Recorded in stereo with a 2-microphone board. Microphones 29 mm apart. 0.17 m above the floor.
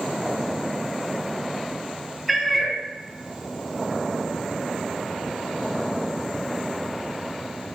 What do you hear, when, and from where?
2.3 s a cat meowing: 5° right (ahead or behind), 0.7 m